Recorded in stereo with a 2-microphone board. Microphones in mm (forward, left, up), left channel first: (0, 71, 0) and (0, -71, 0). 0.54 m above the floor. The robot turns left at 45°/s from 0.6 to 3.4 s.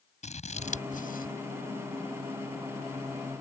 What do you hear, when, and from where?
0.2 s scissors: 50° left (ahead or behind); by 1.3 s 75° left (ahead or behind)